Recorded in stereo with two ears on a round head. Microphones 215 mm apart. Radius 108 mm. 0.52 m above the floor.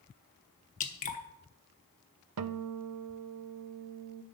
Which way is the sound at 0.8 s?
30° left (ahead or behind).